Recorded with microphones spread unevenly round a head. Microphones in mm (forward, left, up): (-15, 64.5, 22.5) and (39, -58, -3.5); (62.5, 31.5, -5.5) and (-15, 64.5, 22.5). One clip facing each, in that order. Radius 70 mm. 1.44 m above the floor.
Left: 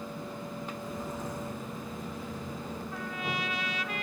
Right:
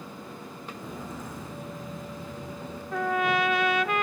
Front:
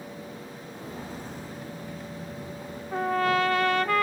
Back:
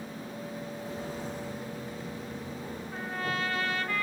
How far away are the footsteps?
About 7 m.